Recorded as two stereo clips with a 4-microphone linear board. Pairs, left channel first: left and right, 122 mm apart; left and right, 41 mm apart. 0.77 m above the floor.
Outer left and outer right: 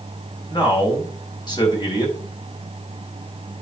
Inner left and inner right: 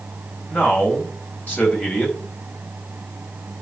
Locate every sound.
0.5 s a man speaking: 35° left (ahead or behind), 4.5 m